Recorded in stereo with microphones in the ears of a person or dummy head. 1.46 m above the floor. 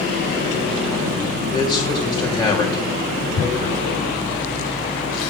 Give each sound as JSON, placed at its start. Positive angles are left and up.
{"t": 1.5, "sound": "a man speaking", "side_deg": 25, "distance_m": 3.5}
{"t": 3.4, "sound": "tearing paper", "side_deg": 90, "distance_m": 7.0}